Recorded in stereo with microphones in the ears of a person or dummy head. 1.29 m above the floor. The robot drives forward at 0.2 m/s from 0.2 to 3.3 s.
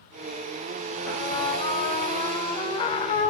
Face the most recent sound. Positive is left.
turn(degrees=25)  # may be behind; listen again after turning